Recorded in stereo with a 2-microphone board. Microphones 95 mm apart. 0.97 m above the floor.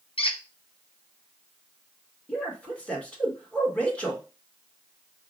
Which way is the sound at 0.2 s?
65° left (ahead or behind).